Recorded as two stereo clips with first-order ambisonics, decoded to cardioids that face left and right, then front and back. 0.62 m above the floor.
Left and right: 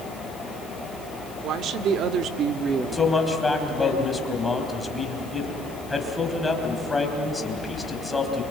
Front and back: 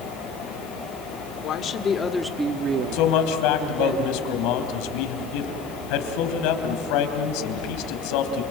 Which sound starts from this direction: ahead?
A man speaking, at 2.9 s.